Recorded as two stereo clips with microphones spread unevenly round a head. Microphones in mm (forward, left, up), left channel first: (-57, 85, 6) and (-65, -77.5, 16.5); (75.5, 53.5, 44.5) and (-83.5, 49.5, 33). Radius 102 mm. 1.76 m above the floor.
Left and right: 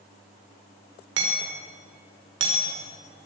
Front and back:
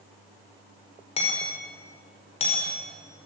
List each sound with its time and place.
1.2 s hammering: 60° right, 5 m